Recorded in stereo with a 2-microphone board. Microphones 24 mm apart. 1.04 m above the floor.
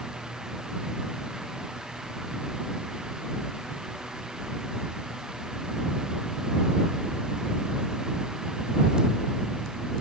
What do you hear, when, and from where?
Only background noise.